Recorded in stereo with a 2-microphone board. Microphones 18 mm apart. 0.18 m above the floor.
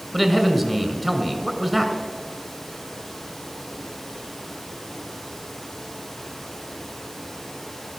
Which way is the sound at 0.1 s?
Centre (ahead or behind).